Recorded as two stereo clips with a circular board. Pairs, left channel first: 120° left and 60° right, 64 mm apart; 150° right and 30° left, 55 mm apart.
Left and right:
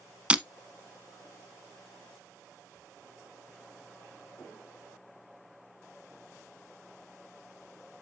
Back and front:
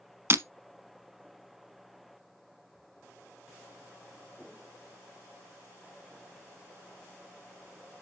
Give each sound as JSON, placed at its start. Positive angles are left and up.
{"t": 0.3, "sound": "breaking glass", "azimuth_deg": 5, "distance_m": 1.0}